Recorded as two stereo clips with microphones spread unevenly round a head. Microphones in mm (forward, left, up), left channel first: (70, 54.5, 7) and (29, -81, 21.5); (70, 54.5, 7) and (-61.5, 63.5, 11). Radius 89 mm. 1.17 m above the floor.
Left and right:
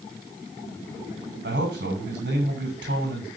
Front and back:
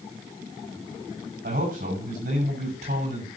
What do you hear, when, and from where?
1.4 s a man speaking: 140° right, 6.5 m